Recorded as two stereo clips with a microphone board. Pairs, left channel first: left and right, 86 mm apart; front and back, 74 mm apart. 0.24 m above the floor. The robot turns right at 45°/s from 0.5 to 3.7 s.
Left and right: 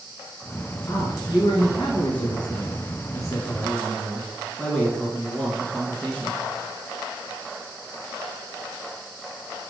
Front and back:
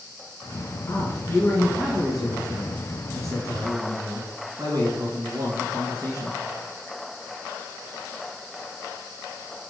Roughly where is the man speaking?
Ahead left.